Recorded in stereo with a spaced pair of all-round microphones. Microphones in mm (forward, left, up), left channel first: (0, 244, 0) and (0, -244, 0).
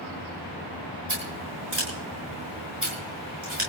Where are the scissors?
75° right (ahead or behind), 7 m.